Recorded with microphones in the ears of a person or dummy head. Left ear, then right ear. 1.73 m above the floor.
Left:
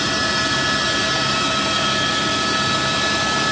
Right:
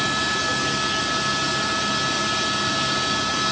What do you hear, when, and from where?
Only background noise.